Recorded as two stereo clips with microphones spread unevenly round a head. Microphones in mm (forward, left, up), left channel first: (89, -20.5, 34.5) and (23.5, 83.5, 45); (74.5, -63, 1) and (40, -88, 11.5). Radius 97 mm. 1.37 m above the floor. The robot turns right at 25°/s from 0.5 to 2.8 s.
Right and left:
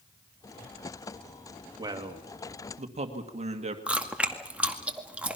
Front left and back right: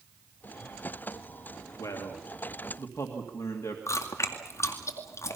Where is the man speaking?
60° left, 2 m; by 3.8 s 85° left, 2 m.